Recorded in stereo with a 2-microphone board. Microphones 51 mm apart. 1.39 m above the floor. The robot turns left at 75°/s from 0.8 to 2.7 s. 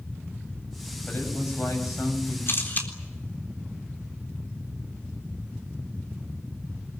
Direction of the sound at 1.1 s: 145° left.